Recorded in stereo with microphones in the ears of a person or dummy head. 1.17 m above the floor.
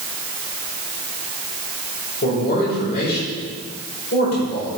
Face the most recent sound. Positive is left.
turn(degrees=60)  # may be behind; listen again after turning